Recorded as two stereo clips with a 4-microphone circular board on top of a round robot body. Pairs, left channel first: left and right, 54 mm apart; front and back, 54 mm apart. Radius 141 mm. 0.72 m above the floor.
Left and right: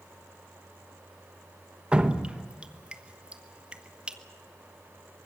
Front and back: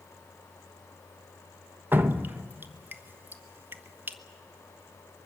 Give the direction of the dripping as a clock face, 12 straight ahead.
5 o'clock.